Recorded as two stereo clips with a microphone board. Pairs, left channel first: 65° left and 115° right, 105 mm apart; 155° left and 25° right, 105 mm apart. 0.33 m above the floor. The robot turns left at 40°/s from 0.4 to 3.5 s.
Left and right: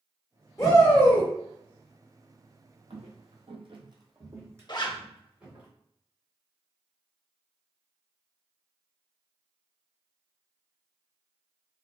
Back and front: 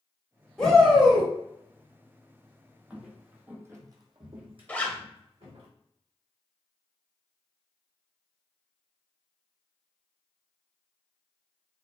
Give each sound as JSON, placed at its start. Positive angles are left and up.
{"t": 0.6, "sound": "a shout", "azimuth_deg": 75, "distance_m": 1.7}
{"t": 2.9, "sound": "footsteps", "azimuth_deg": -105, "distance_m": 0.7}
{"t": 4.7, "sound": "a zipper", "azimuth_deg": 90, "distance_m": 0.6}